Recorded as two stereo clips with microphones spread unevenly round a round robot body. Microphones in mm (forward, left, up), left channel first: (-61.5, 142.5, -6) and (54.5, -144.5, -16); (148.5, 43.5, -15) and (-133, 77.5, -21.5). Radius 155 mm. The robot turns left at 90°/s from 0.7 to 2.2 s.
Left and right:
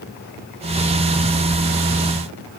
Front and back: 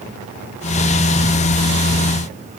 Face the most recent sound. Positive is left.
No sound to turn to.